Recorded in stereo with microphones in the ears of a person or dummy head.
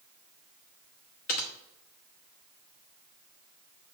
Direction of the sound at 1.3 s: 45° left (ahead or behind).